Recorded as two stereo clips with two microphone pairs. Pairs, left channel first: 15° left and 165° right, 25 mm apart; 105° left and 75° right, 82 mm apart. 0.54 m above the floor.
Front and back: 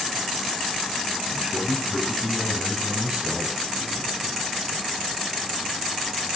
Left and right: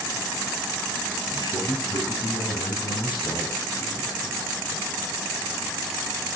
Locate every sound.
1.3 s a man speaking: 125° left, 4 m; by 4.9 s 140° left, 6 m